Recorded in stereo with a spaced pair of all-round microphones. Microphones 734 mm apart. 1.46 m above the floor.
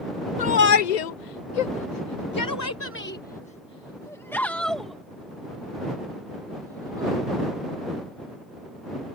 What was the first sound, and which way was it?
A shout, 55° left (ahead or behind).